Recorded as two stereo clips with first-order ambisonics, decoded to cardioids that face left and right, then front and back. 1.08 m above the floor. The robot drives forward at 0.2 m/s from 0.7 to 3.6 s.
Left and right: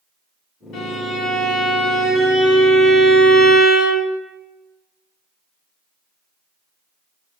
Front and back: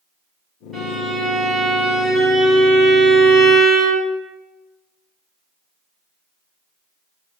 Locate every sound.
0.7 s a violin: 100° left, 1.9 m; by 4.1 s 120° left, 2 m